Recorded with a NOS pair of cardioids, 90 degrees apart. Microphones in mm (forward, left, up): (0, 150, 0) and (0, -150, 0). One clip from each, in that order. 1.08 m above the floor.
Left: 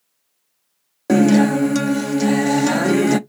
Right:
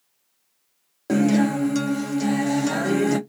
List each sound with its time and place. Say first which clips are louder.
1.1 s a guitar: left 6 dB; 30° left, 0.5 m